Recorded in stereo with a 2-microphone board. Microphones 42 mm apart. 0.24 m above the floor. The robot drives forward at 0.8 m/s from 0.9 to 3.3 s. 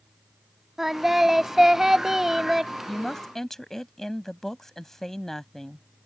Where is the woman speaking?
10° left (ahead or behind).